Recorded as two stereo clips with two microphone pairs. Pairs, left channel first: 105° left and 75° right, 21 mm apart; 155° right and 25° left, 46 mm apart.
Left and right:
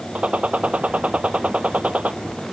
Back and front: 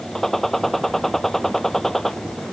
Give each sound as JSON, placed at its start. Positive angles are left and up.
{"t": 0.1, "sound": "a gunshot", "azimuth_deg": -70}